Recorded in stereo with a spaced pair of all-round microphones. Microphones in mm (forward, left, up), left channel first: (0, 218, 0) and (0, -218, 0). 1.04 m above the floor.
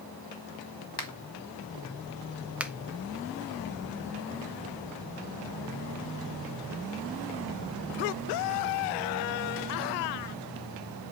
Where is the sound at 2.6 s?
5° right (ahead or behind), 0.7 m.